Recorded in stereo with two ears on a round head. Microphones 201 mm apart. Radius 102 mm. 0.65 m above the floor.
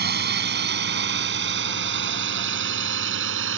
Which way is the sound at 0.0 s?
45° right (ahead or behind).